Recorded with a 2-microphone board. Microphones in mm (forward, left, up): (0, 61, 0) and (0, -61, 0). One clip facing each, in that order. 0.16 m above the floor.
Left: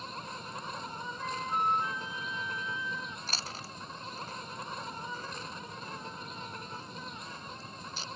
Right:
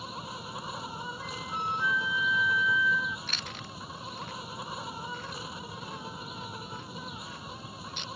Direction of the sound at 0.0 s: 10° right (ahead or behind).